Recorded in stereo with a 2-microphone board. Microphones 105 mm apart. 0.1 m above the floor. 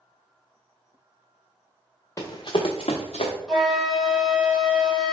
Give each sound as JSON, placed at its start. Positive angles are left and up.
{"t": 2.2, "sound": "running footsteps", "side_deg": 30, "distance_m": 0.8}
{"t": 3.5, "sound": "a flute", "side_deg": 5, "distance_m": 1.3}